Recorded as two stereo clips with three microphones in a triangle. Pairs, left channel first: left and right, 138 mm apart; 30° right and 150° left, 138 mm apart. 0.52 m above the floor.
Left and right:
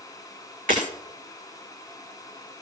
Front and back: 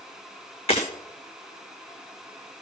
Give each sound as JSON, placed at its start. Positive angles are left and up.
{"t": 0.7, "sound": "breaking glass", "azimuth_deg": -75, "distance_m": 5.5}